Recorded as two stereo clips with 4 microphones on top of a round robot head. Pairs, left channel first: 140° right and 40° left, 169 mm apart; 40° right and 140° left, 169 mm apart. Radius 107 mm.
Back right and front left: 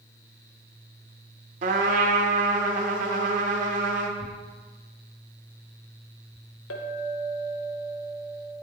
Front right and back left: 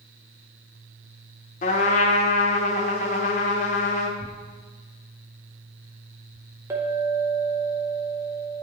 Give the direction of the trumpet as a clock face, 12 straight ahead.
12 o'clock.